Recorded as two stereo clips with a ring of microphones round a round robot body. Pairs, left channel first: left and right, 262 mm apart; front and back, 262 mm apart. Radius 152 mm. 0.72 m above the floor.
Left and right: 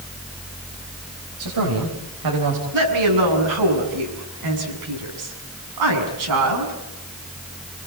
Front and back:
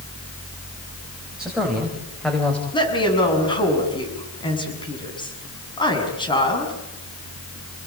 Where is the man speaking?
95° right, 5.5 m; by 2.6 s 85° right, 4 m.